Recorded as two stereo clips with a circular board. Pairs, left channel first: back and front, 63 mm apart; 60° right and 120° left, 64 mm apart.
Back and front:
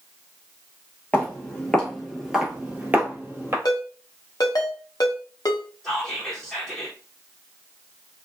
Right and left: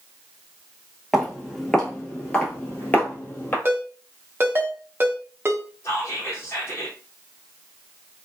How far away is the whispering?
About 0.9 m.